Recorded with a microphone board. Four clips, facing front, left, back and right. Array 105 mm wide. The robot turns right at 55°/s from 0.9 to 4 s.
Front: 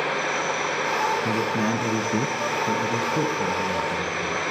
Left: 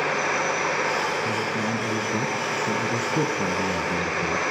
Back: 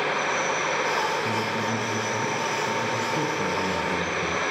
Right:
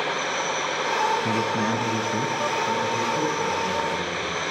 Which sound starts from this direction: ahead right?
A man speaking, at 1.2 s.